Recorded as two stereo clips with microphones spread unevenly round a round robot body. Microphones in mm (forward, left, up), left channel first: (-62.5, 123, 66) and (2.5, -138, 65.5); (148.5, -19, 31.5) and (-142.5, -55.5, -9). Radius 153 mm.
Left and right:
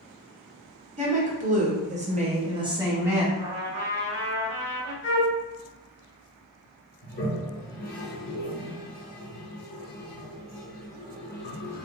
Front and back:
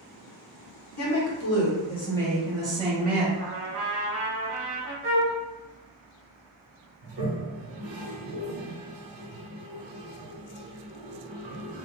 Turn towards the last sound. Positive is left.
turn(degrees=160)